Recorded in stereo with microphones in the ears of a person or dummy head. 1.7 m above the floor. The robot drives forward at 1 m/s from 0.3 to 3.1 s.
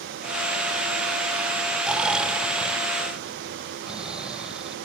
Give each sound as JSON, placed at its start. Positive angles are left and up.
{"t": 1.8, "sound": "snoring", "side_deg": 0}